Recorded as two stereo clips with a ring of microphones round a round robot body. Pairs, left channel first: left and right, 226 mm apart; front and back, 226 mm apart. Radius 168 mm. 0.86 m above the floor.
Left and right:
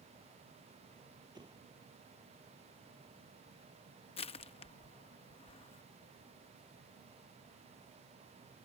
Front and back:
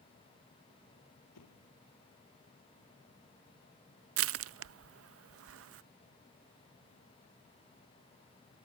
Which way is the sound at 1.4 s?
20° right.